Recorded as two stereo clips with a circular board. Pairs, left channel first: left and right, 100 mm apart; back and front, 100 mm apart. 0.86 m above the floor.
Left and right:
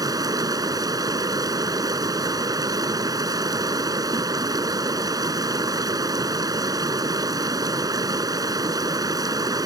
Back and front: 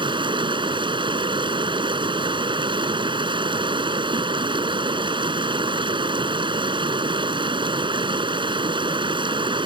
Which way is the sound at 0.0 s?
40° right.